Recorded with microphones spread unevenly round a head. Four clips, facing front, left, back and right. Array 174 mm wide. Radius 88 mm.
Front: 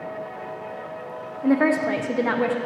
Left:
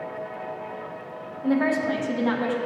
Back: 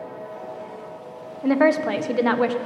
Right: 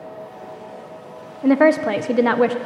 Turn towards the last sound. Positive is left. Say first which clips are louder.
# right 8 dB, back 1 dB
turn(degrees=-80)